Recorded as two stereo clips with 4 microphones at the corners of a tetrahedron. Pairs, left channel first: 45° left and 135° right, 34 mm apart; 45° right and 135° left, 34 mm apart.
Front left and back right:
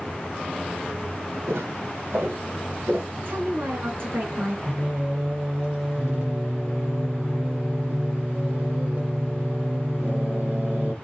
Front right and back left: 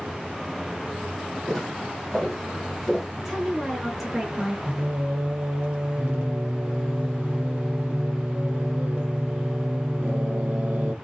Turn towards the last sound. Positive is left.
turn(degrees=-170)